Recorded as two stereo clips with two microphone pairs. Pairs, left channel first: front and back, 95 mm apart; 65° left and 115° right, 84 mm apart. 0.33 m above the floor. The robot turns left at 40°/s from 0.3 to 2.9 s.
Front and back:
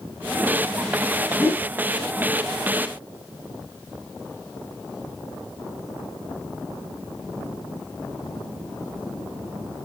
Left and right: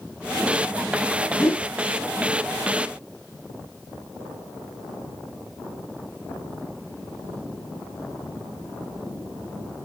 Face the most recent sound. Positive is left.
turn(degrees=-10)